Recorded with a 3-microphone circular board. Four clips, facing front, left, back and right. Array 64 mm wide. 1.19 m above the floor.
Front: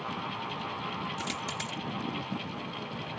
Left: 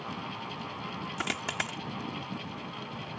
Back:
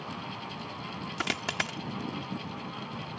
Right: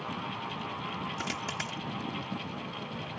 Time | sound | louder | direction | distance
1.2 | a dropped coin | left 2 dB, back 3 dB | 150° left | ?